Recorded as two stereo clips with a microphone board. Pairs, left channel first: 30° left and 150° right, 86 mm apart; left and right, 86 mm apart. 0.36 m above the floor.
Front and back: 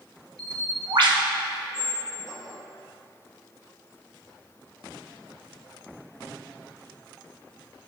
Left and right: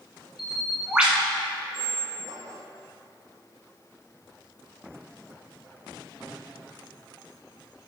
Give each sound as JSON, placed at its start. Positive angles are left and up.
{"t": 0.4, "sound": "a bird", "azimuth_deg": -170, "distance_m": 1.8}
{"t": 1.7, "sound": "a squeak", "azimuth_deg": -65, "distance_m": 1.5}